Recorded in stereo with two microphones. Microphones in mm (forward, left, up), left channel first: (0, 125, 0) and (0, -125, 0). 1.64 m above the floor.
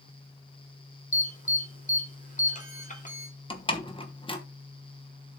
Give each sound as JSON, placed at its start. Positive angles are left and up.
{"t": 1.1, "sound": "an alarm", "side_deg": 30, "distance_m": 1.7}
{"t": 3.5, "sound": "a door slam", "side_deg": 20, "distance_m": 1.2}